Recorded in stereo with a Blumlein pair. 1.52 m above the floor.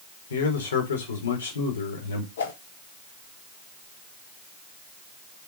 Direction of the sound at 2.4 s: 65° left.